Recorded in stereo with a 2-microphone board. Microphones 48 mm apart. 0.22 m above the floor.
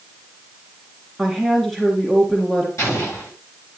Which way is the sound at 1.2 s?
5° left (ahead or behind).